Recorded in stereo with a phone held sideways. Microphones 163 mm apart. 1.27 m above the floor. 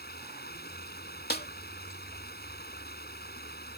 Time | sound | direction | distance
0.0 | running water | 75° left (ahead or behind) | ?
1.3 | a snare drum | 75° left (ahead or behind) | ?